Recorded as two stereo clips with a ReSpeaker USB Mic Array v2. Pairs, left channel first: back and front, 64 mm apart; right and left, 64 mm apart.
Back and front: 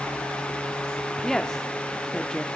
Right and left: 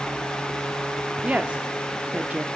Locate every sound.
1.2 s a woman speaking: 115° left, 0.7 m